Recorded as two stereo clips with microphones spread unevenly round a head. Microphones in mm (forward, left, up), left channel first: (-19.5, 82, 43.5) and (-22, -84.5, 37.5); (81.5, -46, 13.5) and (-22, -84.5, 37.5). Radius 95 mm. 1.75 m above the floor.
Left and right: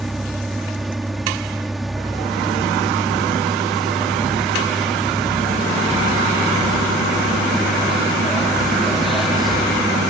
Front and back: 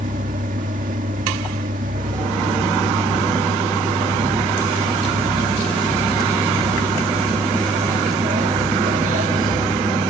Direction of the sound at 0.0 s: Straight behind.